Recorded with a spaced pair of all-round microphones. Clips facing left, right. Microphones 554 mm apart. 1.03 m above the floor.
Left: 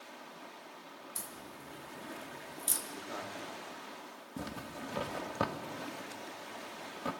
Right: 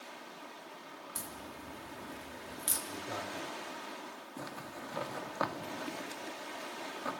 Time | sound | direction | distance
1.1 | a crack | 80° right | 2.5 m
2.9 | a man speaking | 60° right (ahead or behind) | 4.5 m
4.4 | a zipper | 50° left (ahead or behind) | 1.4 m